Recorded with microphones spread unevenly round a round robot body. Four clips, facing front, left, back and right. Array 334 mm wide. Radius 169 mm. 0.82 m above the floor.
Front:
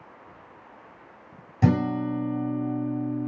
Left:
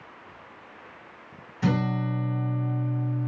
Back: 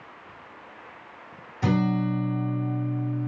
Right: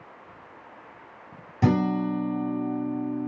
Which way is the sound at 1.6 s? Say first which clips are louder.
Right 4 dB, front 1 dB; 55° right.